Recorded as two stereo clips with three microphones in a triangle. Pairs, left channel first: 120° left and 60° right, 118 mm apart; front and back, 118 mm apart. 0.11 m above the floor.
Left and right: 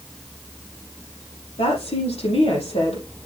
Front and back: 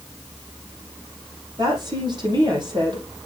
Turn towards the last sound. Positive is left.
turn(degrees=135)